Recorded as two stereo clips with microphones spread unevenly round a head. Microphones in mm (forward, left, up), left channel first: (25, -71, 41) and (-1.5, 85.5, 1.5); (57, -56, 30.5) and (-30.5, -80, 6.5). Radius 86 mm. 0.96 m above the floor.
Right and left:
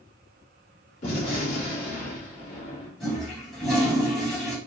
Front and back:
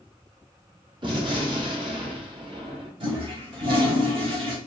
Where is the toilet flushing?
150° right, 1.0 m.